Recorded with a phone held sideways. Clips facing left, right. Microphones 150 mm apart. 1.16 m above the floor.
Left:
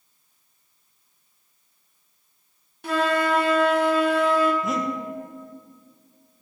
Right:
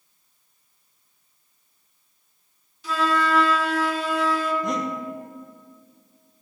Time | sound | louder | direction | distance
2.8 | a flute | left 1 dB | 60° left (ahead or behind) | 1.1 m
4.6 | breathing | even | 5° left (ahead or behind) | 1.1 m